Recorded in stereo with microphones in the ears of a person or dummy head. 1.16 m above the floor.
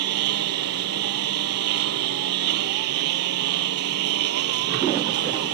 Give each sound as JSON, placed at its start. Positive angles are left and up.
{"t": 0.0, "sound": "a lawn mower", "side_deg": -65}